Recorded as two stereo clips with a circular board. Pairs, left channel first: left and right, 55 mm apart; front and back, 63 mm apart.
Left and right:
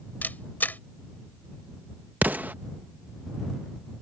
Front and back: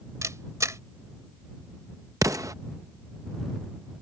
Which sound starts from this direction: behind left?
A camera shutter, at 0.2 s.